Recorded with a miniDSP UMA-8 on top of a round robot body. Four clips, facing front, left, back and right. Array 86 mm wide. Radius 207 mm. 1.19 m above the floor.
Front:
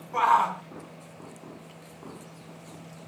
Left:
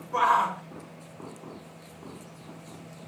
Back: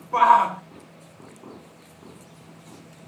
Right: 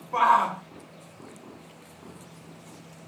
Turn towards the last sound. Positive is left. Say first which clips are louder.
# right 2 dB, back 6 dB
turn(degrees=-160)